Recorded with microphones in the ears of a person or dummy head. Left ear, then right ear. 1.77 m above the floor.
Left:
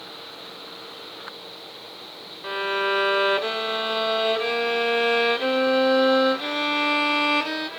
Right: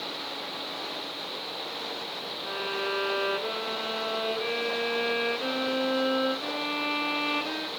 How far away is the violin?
About 0.8 m.